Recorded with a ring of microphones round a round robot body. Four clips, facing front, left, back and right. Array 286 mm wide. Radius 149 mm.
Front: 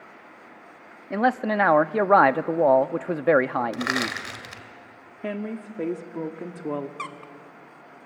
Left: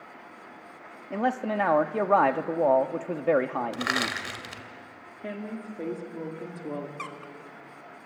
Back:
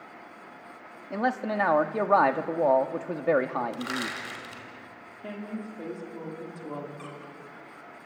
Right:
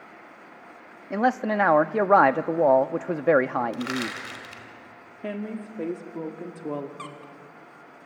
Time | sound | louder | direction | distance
1.1 | a man speaking | right 4 dB, front 5 dB | 35° right | 0.7 m
3.7 | crushing | even, front 5 dB | 40° left | 1.8 m
5.2 | a woman speaking | right 3 dB, front 6 dB | 20° right | 1.7 m
7.0 | a squeak | left 1 dB, front 5 dB | 10° left | 1.1 m